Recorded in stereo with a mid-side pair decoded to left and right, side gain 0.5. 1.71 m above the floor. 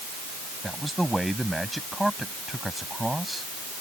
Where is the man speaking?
5° right.